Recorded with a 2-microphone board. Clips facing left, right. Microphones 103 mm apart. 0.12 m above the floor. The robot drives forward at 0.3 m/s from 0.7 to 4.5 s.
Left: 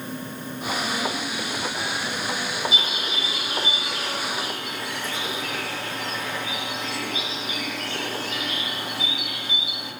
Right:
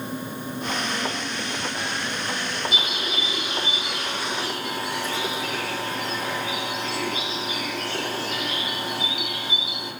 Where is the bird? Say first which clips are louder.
Right 1 dB; 60° right (ahead or behind), 5 m.